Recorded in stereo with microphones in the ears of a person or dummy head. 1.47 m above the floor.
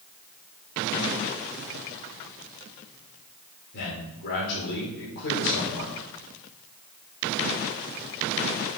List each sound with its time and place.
3.7 s a man speaking: 55° left (ahead or behind), 4 m